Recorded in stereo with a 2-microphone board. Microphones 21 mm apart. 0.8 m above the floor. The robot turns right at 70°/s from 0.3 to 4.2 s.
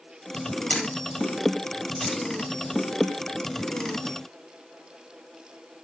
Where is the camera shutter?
65° left (ahead or behind), 8.5 m; by 2.2 s 5° left (ahead or behind), 8.5 m.